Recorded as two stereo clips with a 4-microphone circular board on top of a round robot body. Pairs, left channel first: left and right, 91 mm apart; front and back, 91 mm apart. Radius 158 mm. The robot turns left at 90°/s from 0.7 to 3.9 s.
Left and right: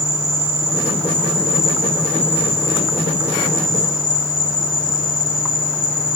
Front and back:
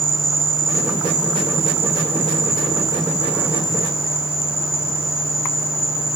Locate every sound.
0.0 s an insect: 90° right, 2 m; by 6.2 s 20° right, 2 m